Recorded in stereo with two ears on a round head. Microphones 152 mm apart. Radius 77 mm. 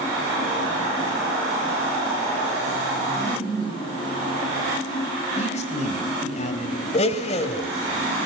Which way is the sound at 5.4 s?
45° left (ahead or behind).